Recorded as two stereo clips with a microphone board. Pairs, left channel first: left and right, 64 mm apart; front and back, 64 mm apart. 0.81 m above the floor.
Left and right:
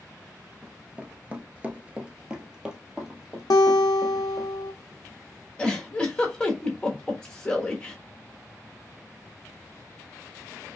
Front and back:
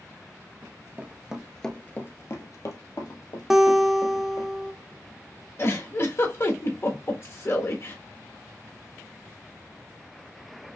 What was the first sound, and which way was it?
Running footsteps, 160° right.